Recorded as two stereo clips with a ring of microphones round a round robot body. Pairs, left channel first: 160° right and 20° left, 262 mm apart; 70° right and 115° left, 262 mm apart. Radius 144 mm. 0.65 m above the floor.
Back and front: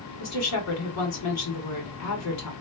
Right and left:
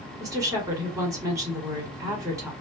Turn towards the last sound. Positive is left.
turn(degrees=-170)